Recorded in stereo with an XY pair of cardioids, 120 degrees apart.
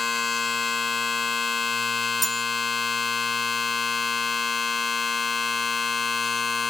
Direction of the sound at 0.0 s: 25° left.